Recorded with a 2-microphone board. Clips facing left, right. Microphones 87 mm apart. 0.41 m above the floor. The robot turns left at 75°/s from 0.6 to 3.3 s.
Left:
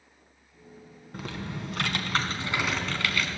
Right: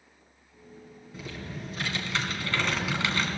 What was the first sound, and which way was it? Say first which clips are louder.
Typing on a keyboard: left 3 dB; 120° left.